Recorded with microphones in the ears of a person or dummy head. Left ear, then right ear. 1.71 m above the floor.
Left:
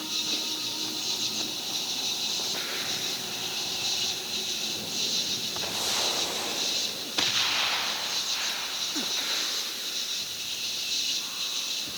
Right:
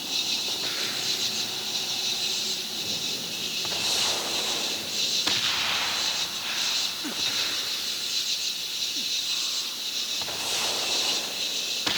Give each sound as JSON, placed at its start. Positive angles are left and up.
{"t": 0.0, "sound": "an insect", "side_deg": -10}